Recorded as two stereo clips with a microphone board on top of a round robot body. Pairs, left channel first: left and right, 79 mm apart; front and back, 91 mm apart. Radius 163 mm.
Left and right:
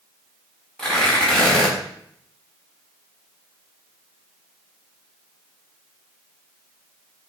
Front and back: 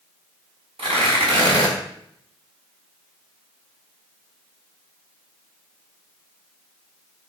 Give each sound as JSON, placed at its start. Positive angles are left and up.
{"t": 0.8, "sound": "tearing paper", "azimuth_deg": 170, "distance_m": 4.5}